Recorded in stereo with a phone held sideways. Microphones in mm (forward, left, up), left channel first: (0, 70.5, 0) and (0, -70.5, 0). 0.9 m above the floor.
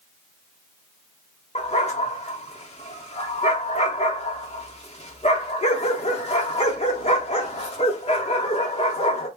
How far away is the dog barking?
About 1.4 m.